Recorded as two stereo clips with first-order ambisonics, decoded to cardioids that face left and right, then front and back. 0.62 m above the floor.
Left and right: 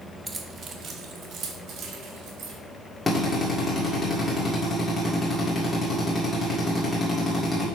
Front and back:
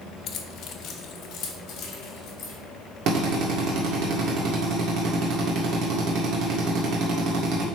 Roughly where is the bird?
I don't hear a bird.